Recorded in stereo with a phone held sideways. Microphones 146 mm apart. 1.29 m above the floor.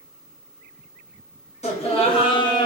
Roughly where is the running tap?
I don't hear a running tap.